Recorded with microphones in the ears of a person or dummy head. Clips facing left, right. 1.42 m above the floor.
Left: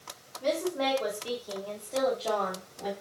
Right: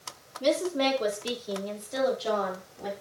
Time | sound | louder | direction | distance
0.4 | a woman speaking | right 3 dB | 50° right (ahead or behind) | 3 m